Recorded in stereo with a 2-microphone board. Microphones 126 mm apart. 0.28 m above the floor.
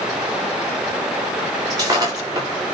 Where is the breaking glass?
30° right (ahead or behind), 8.5 m.